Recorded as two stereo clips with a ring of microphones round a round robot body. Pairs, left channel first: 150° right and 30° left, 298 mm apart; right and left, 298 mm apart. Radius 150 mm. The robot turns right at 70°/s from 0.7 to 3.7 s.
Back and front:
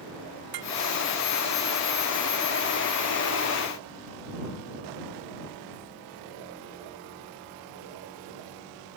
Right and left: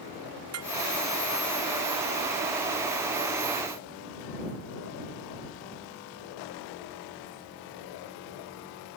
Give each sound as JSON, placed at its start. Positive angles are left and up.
{"t": 0.5, "sound": "dishes clattering", "azimuth_deg": 45}